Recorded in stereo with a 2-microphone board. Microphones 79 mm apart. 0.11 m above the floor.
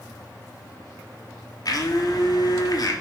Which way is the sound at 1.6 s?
55° left (ahead or behind).